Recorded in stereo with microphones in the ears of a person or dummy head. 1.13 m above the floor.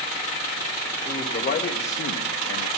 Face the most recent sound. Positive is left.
turn(degrees=65)  # may be behind; listen again after turning